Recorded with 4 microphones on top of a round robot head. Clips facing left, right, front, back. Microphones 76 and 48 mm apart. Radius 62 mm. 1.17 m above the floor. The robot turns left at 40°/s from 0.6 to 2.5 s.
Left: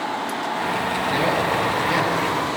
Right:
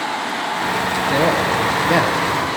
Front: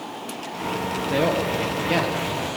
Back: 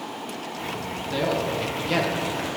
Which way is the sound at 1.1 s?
45° right.